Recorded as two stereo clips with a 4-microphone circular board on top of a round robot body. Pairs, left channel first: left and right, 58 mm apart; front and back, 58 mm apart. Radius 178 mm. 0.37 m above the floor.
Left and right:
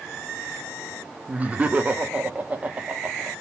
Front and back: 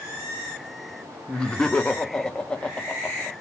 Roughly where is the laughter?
Ahead right.